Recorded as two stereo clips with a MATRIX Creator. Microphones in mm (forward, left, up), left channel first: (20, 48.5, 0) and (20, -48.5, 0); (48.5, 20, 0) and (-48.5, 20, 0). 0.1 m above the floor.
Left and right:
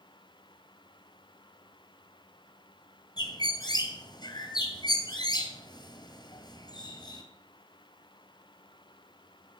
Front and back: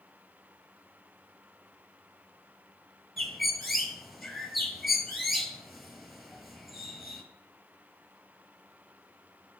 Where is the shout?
I don't hear a shout.